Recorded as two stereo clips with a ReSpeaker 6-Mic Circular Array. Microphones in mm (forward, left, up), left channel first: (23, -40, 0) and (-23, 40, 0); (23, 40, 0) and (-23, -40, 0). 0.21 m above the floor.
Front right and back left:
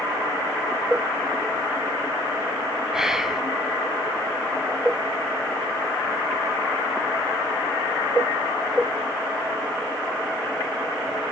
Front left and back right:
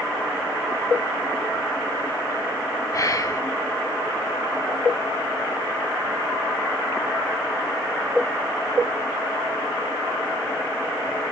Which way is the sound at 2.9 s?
40° left.